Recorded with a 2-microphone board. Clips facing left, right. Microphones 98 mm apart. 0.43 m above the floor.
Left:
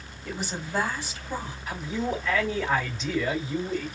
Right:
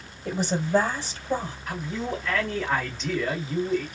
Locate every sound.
0.2 s a woman speaking: 35° right (ahead or behind), 2.5 m
1.7 s a man speaking: centre (ahead or behind), 1.9 m